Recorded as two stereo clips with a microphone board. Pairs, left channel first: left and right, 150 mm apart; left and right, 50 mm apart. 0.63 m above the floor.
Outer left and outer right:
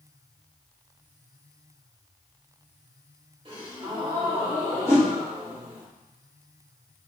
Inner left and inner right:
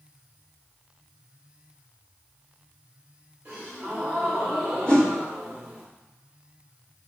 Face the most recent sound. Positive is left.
turn(degrees=20)  # may be behind; listen again after turning